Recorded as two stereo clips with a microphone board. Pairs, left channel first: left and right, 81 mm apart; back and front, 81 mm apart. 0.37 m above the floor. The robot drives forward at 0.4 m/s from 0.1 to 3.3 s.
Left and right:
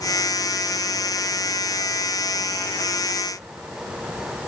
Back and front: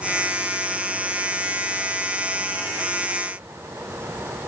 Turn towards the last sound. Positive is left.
No sound to turn to.